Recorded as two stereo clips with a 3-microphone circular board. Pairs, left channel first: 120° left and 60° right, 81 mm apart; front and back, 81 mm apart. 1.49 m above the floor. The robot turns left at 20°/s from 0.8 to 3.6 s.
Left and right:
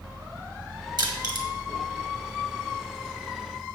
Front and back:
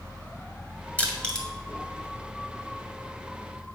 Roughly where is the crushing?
Right.